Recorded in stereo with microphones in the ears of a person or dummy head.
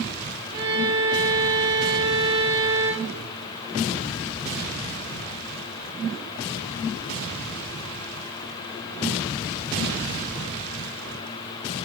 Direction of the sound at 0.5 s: 25° right (ahead or behind).